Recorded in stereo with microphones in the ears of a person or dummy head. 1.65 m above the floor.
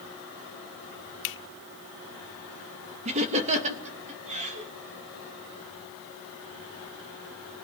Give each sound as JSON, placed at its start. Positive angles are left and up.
{"t": 1.2, "sound": "a finger snap", "side_deg": 60, "distance_m": 0.9}
{"t": 3.0, "sound": "laughter", "side_deg": -35, "distance_m": 3.0}